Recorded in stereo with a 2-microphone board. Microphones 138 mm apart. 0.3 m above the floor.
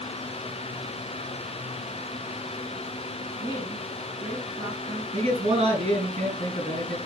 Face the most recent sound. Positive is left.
turn(degrees=-50)  # may be behind; listen again after turning